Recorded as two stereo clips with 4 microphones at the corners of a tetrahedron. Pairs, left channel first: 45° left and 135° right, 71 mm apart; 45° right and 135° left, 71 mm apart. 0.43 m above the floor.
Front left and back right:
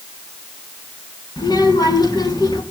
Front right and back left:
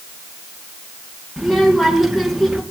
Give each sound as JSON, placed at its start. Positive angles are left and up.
{"t": 1.4, "sound": "a child speaking", "azimuth_deg": 45, "distance_m": 3.5}